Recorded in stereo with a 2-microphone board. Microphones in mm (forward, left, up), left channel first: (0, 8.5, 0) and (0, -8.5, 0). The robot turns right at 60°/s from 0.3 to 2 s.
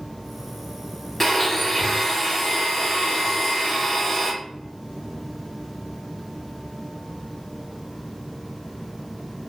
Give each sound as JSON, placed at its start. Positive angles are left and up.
{"t": 1.2, "sound": "a blender", "side_deg": 20, "distance_m": 0.7}